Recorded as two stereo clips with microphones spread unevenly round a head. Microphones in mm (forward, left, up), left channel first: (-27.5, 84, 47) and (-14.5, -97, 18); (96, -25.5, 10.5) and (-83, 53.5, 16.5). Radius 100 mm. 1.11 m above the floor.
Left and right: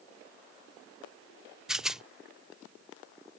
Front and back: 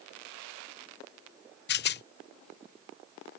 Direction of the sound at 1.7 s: 5° right.